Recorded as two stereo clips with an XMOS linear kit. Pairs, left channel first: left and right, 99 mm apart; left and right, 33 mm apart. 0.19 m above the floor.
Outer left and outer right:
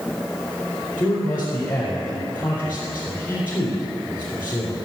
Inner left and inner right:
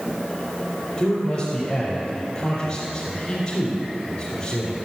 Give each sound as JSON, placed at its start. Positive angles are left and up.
{"t": 1.0, "sound": "a man speaking", "side_deg": 25, "distance_m": 4.5}